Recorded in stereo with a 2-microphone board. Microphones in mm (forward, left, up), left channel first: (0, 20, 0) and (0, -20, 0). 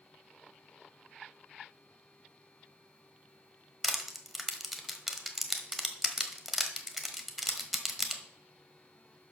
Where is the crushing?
5° right (ahead or behind), 1.2 m.